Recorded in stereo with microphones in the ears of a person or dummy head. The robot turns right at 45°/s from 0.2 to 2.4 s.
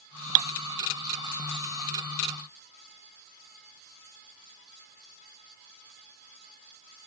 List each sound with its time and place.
Only background noise.